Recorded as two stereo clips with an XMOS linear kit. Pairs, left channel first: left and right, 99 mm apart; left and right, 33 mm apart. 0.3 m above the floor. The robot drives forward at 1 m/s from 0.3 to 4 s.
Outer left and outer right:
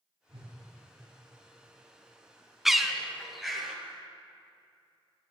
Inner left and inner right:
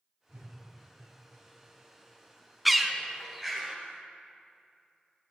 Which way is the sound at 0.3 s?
65° right (ahead or behind).